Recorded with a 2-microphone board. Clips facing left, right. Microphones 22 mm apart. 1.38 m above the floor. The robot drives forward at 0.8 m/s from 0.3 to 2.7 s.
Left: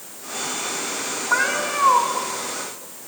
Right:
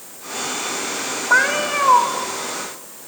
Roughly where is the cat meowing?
Right.